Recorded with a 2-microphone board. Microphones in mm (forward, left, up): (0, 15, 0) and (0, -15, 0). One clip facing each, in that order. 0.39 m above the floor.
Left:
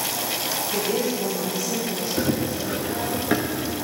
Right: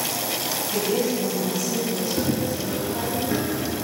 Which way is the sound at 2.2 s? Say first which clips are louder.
Even; 30° left (ahead or behind).